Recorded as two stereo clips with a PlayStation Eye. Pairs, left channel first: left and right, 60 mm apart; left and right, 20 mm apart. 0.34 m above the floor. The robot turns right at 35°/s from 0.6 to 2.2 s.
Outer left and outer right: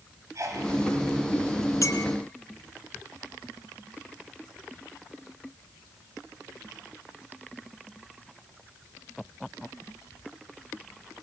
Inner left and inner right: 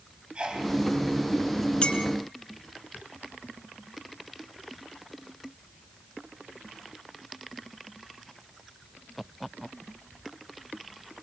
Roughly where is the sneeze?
Right.